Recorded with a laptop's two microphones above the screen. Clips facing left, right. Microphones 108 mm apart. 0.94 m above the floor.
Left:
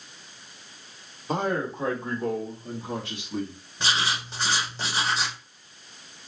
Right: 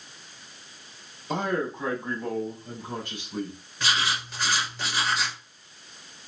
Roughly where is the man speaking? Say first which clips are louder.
Left 1 dB; left.